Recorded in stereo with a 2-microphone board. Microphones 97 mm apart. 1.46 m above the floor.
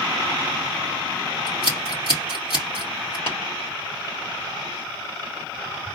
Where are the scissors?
80° left, 3 m.